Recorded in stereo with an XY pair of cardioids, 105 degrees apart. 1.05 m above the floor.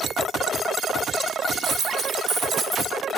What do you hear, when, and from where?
1.6 s a dropped coin: 65° right, 1.6 m